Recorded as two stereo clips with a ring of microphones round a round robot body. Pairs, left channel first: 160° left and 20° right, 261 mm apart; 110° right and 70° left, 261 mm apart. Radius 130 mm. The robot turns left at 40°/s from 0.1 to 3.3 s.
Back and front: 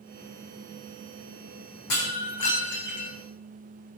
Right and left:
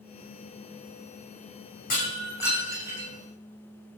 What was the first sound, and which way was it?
Breaking glass, 170° right.